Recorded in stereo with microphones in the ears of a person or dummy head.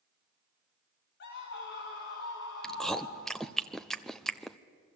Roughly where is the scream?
Left.